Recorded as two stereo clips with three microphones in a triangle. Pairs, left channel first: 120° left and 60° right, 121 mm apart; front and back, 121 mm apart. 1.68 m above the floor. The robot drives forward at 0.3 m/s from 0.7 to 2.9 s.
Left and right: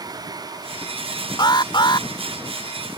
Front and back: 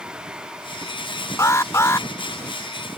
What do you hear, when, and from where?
1.4 s an alarm: 65° left; by 2.1 s 70° left